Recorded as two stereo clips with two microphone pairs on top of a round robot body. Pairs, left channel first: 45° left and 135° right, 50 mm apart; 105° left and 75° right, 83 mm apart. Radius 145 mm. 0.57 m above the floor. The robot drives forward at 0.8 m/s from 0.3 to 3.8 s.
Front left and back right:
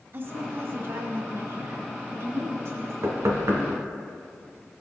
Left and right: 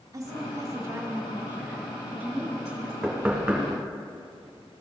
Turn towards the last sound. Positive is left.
turn(degrees=-160)